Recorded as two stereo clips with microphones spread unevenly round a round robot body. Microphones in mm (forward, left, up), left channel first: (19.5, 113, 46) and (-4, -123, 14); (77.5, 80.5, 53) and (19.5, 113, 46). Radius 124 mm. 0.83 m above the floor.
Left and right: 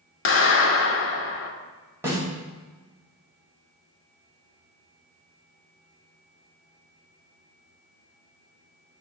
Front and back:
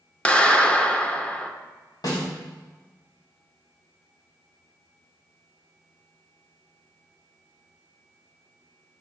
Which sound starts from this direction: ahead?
A snare drum, at 2.0 s.